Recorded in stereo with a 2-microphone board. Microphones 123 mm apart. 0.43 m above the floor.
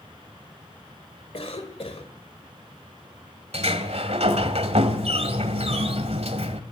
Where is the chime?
I don't hear a chime.